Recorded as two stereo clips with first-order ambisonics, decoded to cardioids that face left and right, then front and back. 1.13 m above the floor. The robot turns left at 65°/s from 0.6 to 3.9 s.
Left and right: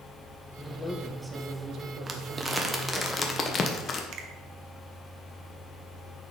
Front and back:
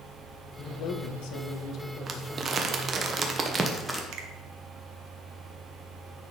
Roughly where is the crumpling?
Behind right.